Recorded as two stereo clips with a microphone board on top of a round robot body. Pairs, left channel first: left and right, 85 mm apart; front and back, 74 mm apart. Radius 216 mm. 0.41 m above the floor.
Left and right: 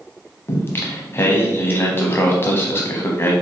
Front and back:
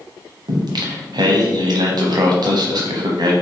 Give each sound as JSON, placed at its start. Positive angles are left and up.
{"t": 0.5, "sound": "singing", "azimuth_deg": 155, "distance_m": 0.8}